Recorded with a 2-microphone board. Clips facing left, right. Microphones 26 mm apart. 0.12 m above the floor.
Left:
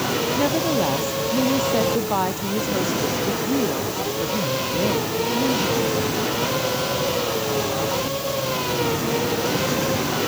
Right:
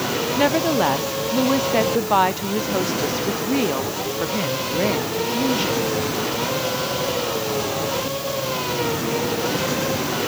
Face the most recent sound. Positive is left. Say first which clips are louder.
# right 4 dB
turn(degrees=-45)  # may be behind; listen again after turning